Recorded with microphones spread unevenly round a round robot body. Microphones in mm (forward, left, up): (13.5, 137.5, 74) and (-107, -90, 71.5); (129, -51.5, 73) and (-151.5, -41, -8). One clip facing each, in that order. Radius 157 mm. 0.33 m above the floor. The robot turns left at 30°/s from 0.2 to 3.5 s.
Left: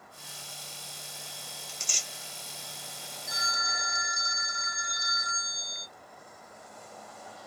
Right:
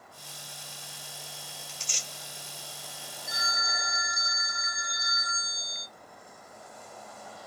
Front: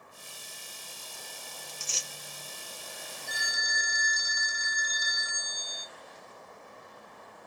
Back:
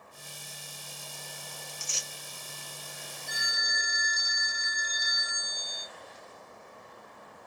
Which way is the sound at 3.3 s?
30° left.